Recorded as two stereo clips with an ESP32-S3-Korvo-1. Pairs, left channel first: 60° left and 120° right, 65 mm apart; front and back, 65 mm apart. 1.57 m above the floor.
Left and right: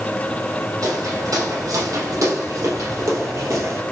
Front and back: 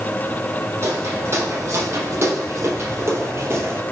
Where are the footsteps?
135° right, 4 m; by 3.8 s 145° right, 2.5 m.